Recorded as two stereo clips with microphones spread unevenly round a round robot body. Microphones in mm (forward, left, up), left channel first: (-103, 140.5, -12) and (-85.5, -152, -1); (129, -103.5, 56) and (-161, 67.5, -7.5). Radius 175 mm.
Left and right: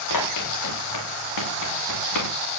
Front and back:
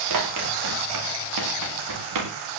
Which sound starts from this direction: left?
Running footsteps, at 0.1 s.